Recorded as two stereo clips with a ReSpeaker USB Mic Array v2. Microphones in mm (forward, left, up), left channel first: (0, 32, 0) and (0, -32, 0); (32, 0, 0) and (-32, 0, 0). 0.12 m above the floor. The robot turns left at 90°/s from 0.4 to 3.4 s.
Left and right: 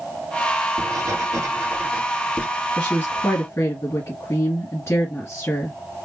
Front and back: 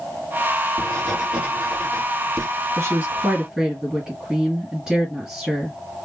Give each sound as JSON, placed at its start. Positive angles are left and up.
{"t": 0.8, "sound": "writing", "azimuth_deg": -55, "distance_m": 2.5}
{"t": 2.8, "sound": "a woman speaking", "azimuth_deg": 155, "distance_m": 2.0}